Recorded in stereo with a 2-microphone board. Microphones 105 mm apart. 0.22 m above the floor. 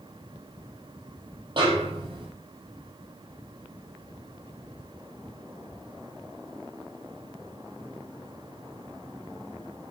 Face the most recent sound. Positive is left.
turn(degrees=-50)  # may be behind; listen again after turning